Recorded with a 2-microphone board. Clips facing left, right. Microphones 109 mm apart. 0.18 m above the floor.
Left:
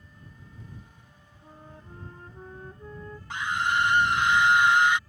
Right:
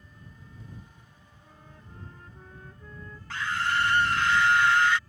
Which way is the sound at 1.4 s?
35° left (ahead or behind).